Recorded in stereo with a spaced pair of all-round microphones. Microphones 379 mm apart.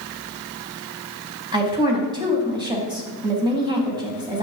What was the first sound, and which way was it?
A woman speaking, 10° right (ahead or behind).